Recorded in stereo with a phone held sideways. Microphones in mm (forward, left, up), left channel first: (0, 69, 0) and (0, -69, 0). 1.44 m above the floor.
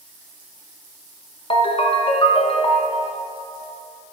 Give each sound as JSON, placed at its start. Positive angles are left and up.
{"t": 1.5, "sound": "a ringtone", "side_deg": 40, "distance_m": 0.8}